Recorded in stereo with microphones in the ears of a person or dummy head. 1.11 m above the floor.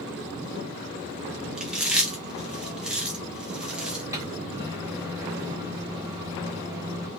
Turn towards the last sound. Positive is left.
turn(degrees=-10)  # may be behind; listen again after turning